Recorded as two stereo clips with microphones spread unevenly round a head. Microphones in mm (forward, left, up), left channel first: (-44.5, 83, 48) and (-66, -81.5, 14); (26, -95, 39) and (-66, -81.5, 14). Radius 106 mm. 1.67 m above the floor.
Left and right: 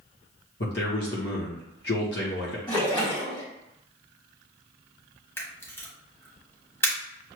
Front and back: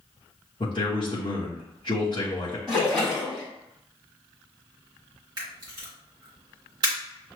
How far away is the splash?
About 1.2 m.